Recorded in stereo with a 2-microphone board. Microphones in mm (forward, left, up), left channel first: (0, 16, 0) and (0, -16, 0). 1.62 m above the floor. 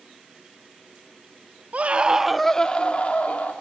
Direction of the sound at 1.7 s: 50° right (ahead or behind).